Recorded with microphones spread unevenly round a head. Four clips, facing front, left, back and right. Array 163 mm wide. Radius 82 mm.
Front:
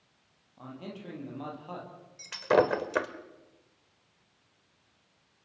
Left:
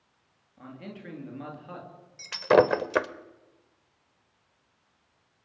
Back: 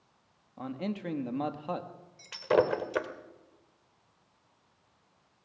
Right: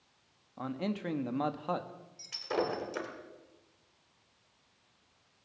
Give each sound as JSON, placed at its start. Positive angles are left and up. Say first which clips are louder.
{"t": 0.6, "sound": "a man speaking", "louder": "right 7 dB, back 7 dB", "azimuth_deg": -145, "distance_m": 2.0}
{"t": 2.2, "sound": "breaking glass", "louder": "left 14 dB, front 2 dB", "azimuth_deg": 65, "distance_m": 1.2}